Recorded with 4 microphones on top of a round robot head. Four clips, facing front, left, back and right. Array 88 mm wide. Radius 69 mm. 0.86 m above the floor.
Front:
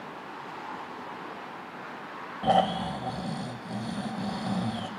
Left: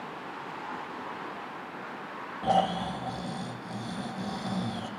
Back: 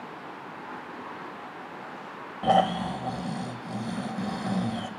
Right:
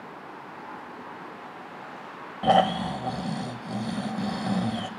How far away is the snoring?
About 0.7 m.